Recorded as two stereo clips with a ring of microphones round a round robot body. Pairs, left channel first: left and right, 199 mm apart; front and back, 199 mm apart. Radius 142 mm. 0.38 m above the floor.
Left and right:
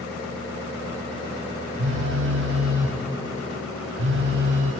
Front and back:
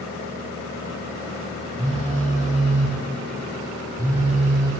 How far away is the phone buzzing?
About 2.5 m.